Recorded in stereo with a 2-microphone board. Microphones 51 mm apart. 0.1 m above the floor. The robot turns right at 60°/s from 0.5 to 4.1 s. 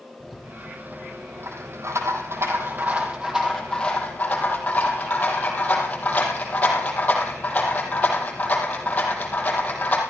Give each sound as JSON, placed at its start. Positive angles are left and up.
{"t": 0.2, "sound": "a rattle", "side_deg": 0, "distance_m": 3.5}